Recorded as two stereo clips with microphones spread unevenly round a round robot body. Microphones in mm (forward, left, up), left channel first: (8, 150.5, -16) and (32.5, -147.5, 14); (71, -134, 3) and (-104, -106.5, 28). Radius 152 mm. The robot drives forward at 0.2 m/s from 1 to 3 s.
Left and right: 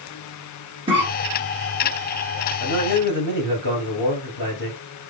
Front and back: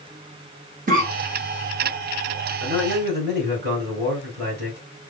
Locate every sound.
0.9 s a cough: 160° right, 1.5 m
2.6 s a man speaking: 145° left, 3 m